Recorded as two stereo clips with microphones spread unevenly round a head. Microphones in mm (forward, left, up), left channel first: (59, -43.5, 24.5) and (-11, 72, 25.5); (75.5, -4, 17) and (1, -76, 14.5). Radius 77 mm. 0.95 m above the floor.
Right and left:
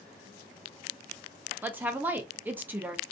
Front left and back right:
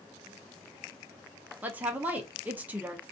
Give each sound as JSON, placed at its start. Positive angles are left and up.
{"t": 1.6, "sound": "a woman speaking", "azimuth_deg": 175, "distance_m": 0.6}